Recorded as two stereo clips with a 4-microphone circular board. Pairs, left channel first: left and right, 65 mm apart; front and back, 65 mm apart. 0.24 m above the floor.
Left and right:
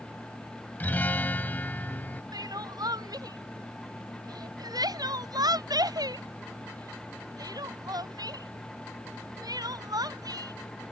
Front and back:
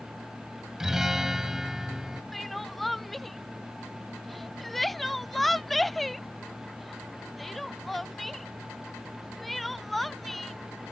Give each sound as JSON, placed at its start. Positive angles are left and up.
{"t": 0.8, "sound": "a guitar", "azimuth_deg": 105}
{"t": 2.3, "sound": "crying", "azimuth_deg": -90}